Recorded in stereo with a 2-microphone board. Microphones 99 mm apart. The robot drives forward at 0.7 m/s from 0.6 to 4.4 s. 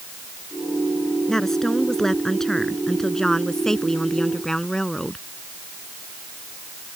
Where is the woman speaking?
5° left (ahead or behind).